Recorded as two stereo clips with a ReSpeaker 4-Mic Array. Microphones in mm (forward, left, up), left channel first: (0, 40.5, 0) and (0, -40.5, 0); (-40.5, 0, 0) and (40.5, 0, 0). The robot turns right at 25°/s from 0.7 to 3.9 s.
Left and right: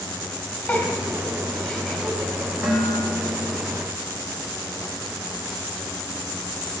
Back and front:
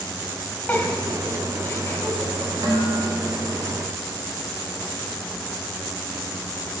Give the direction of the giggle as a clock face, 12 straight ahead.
7 o'clock.